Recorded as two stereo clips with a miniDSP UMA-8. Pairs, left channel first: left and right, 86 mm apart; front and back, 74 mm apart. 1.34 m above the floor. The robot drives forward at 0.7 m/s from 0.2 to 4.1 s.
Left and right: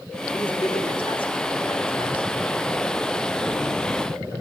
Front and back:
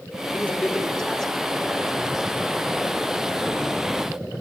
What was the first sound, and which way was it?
A man speaking, 75° left.